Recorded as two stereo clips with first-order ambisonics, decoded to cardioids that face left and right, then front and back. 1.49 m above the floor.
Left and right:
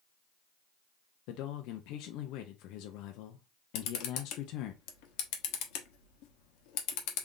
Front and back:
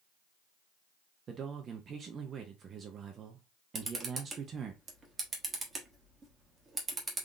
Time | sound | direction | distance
1.3 | a man speaking | 115° left | 0.6 m
3.8 | a camera shutter | 105° left | 0.9 m